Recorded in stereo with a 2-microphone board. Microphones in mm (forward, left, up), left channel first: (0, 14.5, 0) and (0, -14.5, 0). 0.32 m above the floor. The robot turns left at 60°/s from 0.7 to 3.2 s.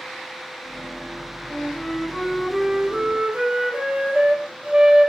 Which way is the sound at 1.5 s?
55° left.